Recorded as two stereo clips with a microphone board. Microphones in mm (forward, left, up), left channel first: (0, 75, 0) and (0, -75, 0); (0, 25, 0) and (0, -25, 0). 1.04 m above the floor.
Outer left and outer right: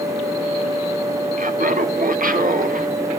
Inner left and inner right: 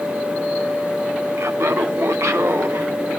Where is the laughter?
60° right (ahead or behind), 1.3 m; by 2.9 s 65° right (ahead or behind), 1.8 m.